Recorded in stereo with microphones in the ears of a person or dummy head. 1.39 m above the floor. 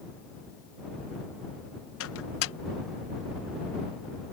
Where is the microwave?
80° left.